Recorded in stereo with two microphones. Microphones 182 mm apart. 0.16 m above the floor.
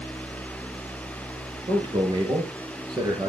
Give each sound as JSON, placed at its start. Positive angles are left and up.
{"t": 1.7, "sound": "a man speaking", "side_deg": -30, "distance_m": 3.5}